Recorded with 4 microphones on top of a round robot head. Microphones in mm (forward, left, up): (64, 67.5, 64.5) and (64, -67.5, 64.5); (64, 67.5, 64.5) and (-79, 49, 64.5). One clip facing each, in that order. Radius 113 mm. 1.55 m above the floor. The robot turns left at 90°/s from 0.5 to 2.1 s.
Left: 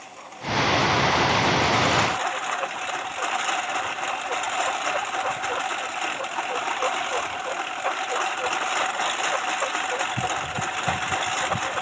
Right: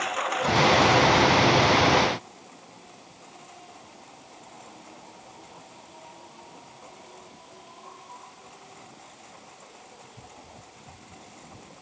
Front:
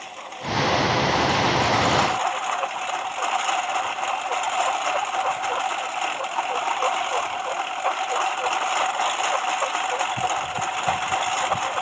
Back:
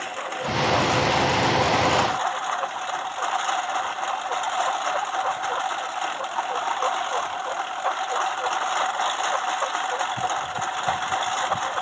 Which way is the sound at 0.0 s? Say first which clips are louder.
Right 9 dB, back 5 dB; 125° right.